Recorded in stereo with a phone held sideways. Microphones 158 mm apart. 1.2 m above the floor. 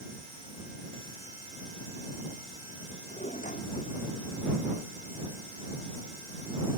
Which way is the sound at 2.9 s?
50° left (ahead or behind).